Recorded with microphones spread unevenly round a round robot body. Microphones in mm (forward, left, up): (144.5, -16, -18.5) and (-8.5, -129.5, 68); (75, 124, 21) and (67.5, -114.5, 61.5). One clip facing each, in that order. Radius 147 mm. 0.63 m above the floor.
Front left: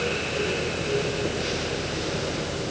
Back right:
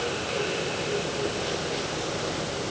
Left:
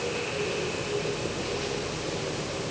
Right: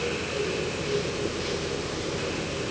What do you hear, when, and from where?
Only background noise.